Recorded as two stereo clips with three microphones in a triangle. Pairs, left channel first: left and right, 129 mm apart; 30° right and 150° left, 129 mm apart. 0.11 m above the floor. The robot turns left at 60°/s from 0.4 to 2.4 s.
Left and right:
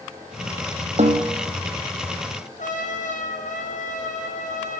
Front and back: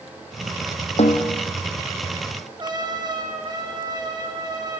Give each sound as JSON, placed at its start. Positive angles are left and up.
{"t": 1.0, "sound": "a snare drum", "azimuth_deg": -60, "distance_m": 3.0}
{"t": 2.6, "sound": "a trumpet", "azimuth_deg": 95, "distance_m": 4.5}